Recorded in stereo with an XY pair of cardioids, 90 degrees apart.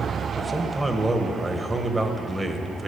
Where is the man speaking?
25° right, 1.5 m.